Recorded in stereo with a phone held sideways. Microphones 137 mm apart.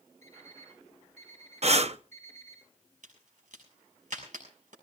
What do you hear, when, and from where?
0.2 s an alarm clock: 60° right (ahead or behind), 9.5 m
1.6 s breathing: 50° right (ahead or behind), 0.7 m
3.0 s a crack: 65° right (ahead or behind), 6 m